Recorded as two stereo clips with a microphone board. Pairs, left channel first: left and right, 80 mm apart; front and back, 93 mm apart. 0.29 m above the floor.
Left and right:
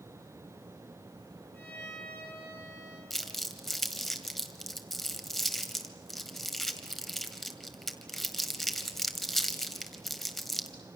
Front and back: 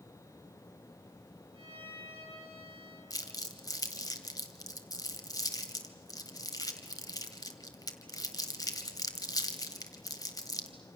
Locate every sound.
1.5 s a violin: 155° left, 8 m
3.1 s crumpling: 5° left, 1.8 m